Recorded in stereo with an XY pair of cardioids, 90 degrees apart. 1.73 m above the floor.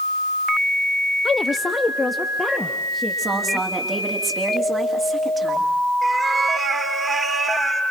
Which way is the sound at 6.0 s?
40° right.